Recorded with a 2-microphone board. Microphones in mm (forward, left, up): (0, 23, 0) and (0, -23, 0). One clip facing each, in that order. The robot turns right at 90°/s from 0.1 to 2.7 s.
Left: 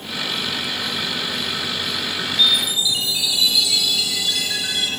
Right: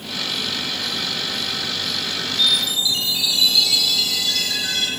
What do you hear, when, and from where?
2.4 s a chime: 40° left (ahead or behind), 1.7 m; by 4.9 s 10° left (ahead or behind), 1.7 m